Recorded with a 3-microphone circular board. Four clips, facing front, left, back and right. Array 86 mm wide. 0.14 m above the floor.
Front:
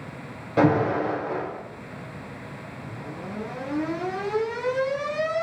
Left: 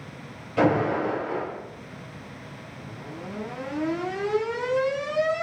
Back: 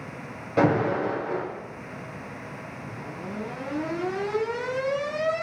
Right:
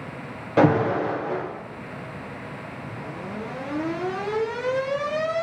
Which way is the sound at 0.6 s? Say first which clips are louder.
Right 3 dB, front 2 dB; 95° right.